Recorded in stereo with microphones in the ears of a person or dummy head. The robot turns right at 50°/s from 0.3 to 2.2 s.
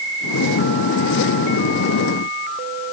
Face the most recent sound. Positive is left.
No sound to turn to.